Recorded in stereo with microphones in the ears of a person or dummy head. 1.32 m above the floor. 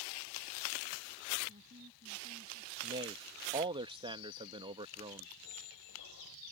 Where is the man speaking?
25° right (ahead or behind).